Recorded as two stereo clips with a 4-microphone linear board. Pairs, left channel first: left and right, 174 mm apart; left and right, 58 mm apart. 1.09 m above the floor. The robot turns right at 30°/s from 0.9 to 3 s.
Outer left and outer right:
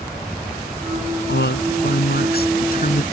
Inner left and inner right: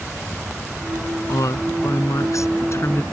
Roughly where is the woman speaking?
Left.